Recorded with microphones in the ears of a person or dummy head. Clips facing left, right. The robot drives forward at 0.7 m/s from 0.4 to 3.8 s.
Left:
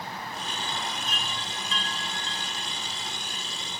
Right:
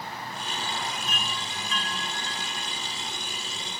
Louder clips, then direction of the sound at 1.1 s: Right 1 dB; 30° left (ahead or behind).